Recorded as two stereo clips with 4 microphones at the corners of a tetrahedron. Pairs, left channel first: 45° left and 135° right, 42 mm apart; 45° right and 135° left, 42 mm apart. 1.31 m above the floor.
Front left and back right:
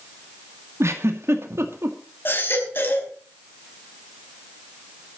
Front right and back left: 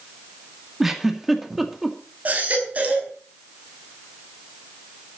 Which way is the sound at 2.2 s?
80° left.